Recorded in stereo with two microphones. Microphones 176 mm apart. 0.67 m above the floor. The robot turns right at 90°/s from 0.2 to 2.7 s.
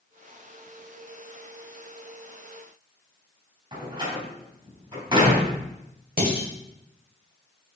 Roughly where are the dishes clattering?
Right.